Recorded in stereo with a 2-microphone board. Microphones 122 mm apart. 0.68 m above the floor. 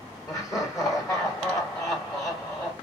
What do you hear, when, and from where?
0.3 s laughter: 30° left (ahead or behind), 1.8 m